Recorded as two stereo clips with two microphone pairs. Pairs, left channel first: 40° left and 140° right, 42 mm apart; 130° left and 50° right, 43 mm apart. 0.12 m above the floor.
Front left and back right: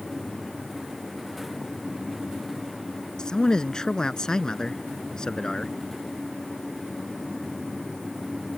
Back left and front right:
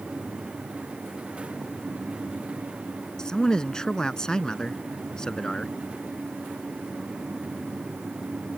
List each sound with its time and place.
3.2 s a man speaking: 85° left